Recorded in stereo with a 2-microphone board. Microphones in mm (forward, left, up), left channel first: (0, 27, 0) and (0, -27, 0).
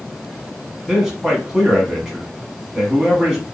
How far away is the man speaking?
About 1.2 m.